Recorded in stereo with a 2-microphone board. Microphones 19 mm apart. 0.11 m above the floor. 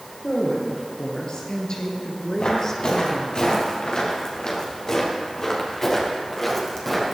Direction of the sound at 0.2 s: 60° left (ahead or behind).